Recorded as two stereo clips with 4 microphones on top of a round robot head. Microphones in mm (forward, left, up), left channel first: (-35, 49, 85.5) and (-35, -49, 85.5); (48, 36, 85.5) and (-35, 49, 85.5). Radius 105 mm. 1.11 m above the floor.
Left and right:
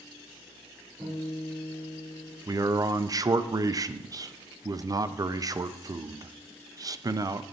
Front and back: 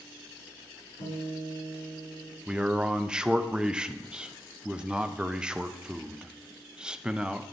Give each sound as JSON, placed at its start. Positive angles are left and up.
{"t": 1.0, "sound": "a guitar", "azimuth_deg": -20, "distance_m": 4.0}
{"t": 2.5, "sound": "a man speaking", "azimuth_deg": -115, "distance_m": 0.5}